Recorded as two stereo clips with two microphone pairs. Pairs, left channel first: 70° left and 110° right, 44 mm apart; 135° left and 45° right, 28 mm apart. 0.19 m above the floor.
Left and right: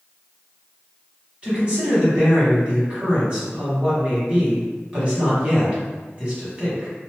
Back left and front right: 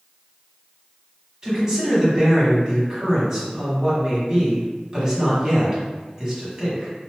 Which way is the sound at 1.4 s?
80° right.